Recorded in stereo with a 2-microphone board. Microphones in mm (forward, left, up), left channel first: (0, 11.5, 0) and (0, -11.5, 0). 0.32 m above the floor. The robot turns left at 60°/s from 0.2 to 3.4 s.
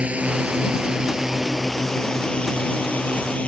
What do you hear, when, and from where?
0.0 s a drone: 75° right (ahead or behind); by 3.5 s 75° left (ahead or behind)